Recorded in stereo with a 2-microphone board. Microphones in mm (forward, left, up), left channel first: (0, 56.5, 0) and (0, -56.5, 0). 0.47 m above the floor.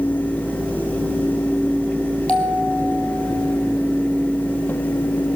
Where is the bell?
10° left (ahead or behind), 4 m.